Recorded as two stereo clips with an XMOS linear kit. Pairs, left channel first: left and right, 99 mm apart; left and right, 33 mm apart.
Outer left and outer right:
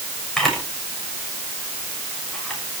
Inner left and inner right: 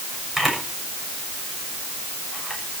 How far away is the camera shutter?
About 7 m.